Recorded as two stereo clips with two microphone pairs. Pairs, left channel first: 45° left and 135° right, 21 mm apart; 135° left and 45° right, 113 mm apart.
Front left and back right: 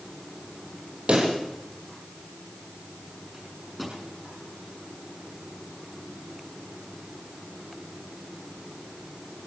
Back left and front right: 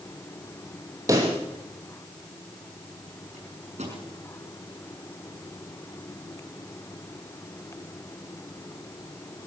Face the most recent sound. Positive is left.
turn(degrees=-50)